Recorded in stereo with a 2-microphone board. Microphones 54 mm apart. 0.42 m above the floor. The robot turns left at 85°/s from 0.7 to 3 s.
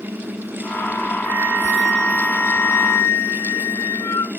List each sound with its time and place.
1.2 s a flute: 140° right, 0.6 m; by 4.3 s 75° left, 0.6 m